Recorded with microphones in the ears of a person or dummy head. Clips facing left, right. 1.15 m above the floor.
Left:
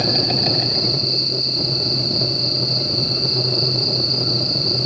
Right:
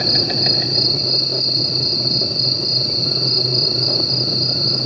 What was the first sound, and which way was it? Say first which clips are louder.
An insect: left 1 dB; 15° right (ahead or behind).